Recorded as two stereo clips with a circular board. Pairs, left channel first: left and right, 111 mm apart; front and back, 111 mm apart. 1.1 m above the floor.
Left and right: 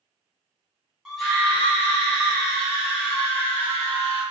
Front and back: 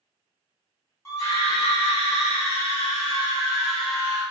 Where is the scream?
10° right, 0.6 m; by 4.2 s 45° left, 1.8 m.